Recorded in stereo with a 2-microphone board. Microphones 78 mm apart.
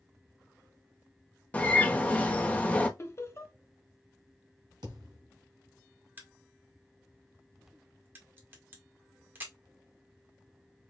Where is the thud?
70° right (ahead or behind), 2.5 m.